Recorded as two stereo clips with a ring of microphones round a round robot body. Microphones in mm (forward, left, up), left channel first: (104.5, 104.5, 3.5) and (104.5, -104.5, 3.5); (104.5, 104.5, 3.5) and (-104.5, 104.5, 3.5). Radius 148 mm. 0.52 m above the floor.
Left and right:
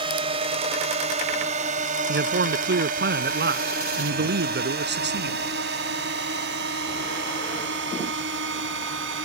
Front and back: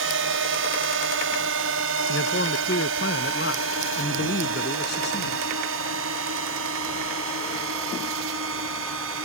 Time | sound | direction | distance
0.0 | a drone | 160° right | ?
2.1 | a man speaking | 55° right | ?